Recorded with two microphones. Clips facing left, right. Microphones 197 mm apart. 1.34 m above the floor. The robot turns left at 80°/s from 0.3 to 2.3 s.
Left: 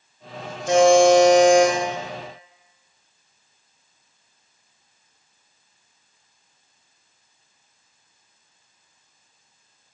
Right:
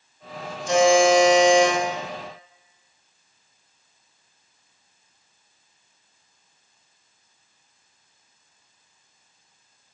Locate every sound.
0.7 s a buzzer: 110° left, 0.7 m; by 1.7 s 25° left, 0.7 m